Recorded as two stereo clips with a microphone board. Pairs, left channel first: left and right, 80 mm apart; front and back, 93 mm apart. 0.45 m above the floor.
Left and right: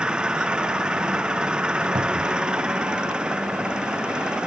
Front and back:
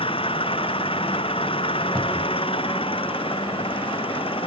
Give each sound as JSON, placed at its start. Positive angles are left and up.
{"t": 0.0, "sound": "an engine running", "azimuth_deg": -10}
{"t": 1.9, "sound": "a cupboard door", "azimuth_deg": -80}